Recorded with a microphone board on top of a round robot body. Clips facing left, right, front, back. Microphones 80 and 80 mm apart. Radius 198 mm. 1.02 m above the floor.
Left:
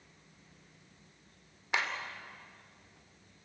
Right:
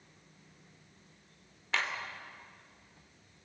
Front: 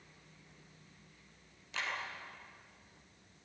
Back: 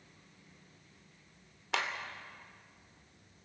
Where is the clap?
165° left, 3 m.